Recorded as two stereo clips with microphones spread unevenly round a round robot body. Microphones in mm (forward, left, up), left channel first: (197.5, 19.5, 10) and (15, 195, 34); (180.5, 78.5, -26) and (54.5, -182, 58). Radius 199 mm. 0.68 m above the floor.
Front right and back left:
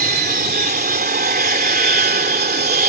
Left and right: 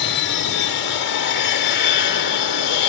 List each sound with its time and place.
0.0 s an aircraft: 90° left